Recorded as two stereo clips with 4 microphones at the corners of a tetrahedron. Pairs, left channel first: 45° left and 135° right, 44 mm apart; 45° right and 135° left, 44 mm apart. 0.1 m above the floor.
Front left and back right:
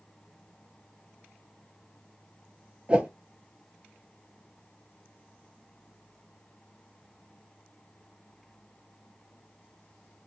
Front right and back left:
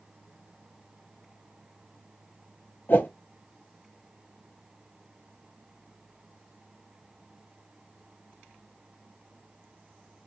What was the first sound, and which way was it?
A whoosh, 75° right.